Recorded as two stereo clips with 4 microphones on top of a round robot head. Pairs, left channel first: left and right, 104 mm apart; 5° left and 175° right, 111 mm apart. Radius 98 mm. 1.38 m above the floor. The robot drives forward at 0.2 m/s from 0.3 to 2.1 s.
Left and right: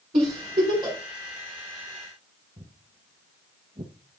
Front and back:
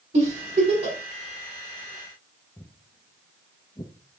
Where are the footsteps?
85° right, 1.8 m; by 3.9 s 55° right, 2 m.